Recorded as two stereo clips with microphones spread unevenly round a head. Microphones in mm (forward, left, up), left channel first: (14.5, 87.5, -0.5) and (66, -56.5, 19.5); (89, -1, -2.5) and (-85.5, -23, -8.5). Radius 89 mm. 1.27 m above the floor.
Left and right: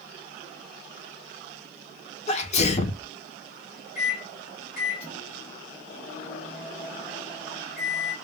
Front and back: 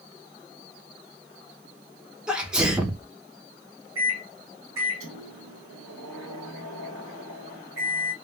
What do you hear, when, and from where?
2.3 s a sneeze: 105° left, 0.6 m
4.0 s a microwave: 170° left, 1.3 m